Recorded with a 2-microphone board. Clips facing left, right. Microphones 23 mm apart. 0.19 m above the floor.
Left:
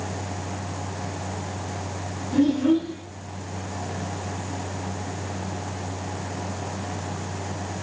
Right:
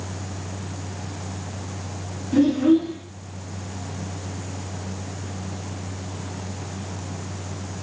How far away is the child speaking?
About 1.8 m.